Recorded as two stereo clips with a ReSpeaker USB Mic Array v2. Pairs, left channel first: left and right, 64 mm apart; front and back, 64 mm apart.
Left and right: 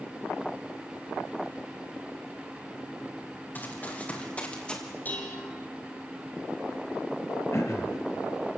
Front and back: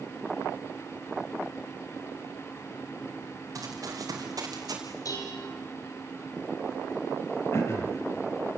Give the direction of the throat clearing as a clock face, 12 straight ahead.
10 o'clock.